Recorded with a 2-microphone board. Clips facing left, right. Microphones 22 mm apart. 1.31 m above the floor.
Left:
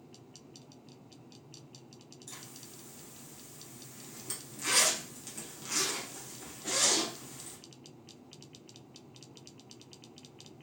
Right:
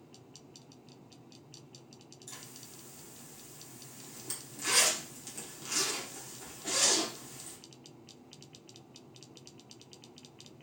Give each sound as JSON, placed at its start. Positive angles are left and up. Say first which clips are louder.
{"t": 2.3, "sound": "a zipper", "louder": "even", "side_deg": 0, "distance_m": 0.7}